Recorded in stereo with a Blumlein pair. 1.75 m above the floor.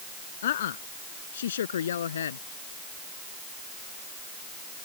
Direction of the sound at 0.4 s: 60° left.